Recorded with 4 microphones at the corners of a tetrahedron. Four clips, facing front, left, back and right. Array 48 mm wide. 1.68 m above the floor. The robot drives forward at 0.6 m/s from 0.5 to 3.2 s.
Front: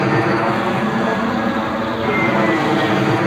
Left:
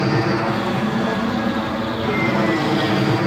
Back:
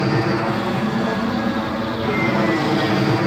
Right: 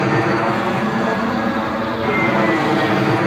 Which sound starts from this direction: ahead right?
An aircraft, at 0.0 s.